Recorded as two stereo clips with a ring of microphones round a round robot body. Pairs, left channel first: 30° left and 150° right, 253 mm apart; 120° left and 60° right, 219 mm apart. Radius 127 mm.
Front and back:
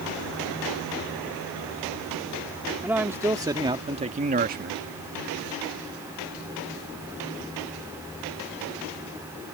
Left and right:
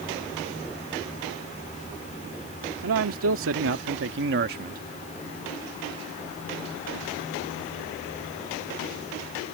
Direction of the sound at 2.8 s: 65° right.